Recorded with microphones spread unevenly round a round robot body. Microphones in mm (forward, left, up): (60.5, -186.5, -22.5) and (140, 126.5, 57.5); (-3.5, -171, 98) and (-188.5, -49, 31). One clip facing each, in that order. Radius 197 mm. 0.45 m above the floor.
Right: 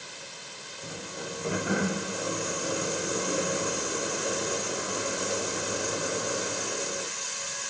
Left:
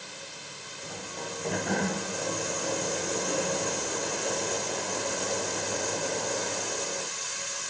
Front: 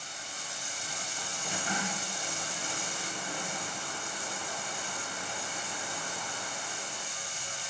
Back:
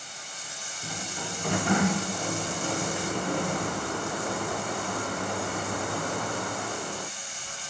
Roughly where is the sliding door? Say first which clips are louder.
Right 1 dB, back 11 dB; behind.